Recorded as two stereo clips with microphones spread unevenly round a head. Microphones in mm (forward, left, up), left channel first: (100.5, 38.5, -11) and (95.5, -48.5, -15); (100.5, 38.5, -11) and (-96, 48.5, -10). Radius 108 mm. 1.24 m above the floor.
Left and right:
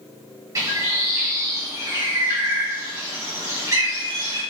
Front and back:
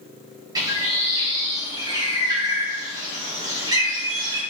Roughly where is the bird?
Behind right.